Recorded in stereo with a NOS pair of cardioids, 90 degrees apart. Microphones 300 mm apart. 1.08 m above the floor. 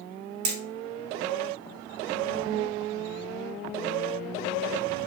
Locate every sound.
0.5 s hammering: 70° right, 1.9 m